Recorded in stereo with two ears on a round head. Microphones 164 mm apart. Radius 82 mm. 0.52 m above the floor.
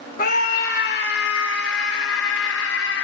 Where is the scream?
50° left (ahead or behind), 3.5 m; by 3.0 s 75° left (ahead or behind), 5.5 m.